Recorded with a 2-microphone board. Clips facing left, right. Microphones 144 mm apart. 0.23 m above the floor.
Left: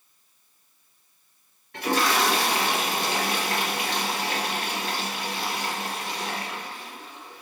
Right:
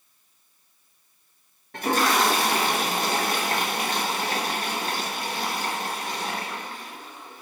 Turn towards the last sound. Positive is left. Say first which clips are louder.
# right 1 dB
turn(degrees=-45)  # may be behind; listen again after turning